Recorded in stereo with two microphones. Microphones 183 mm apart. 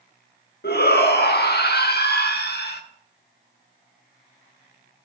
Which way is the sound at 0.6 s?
60° left (ahead or behind).